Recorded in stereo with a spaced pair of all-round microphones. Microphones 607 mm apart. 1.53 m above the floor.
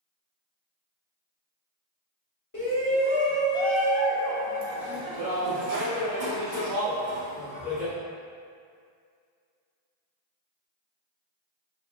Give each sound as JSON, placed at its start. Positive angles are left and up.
{"t": 2.5, "sound": "a shout", "side_deg": 30, "distance_m": 1.1}